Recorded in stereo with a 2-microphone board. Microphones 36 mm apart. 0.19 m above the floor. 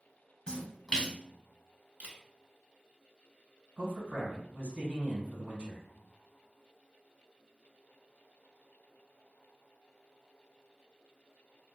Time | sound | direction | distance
0.5 | a splash | 20° left (ahead or behind) | 0.9 m
2.0 | a camera shutter | 50° right (ahead or behind) | 0.7 m
3.8 | a man speaking | 45° right (ahead or behind) | 1.6 m